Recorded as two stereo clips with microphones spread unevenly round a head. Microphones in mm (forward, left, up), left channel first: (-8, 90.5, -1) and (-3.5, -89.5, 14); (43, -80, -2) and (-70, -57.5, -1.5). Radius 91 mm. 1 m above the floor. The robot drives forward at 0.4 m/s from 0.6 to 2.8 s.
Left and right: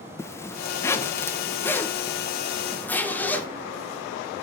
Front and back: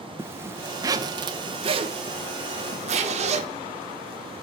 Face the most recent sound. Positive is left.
turn(degrees=170)